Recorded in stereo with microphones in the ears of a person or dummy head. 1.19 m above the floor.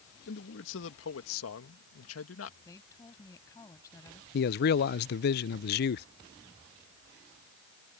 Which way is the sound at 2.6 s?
15° left (ahead or behind).